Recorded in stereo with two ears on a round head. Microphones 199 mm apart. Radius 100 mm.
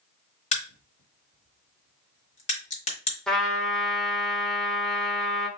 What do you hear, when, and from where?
0.5 s a crack: 30° left (ahead or behind), 1.5 m
3.3 s a trumpet: 5° left (ahead or behind), 0.8 m